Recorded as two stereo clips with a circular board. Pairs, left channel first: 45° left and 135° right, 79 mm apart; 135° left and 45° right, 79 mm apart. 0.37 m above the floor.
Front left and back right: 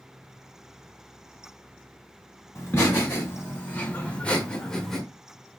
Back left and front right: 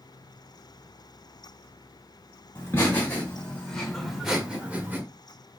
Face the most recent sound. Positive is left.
turn(degrees=-40)